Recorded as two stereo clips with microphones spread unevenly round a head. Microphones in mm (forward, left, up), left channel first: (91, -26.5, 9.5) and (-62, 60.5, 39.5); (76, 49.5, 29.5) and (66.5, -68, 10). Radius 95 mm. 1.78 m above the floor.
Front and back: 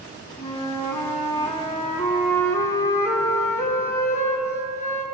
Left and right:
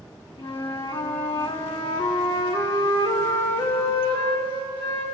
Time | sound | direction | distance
0.4 | a flute | 50° left | 5 m